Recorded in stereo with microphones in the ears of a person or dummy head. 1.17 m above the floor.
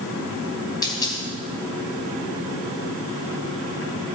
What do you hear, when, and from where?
0.8 s a dropped coin: 15° left (ahead or behind), 4 m